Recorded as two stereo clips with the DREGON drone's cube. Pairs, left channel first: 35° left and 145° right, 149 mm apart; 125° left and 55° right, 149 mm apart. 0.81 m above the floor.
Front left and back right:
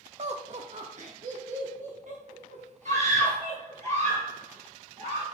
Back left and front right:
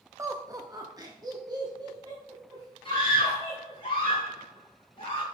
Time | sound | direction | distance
0.2 | laughter | 120° right | 0.6 m
2.9 | a scream | straight behind | 3.5 m